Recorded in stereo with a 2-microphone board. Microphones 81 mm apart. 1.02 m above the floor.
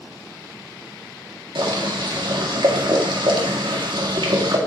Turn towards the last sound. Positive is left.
turn(degrees=-80)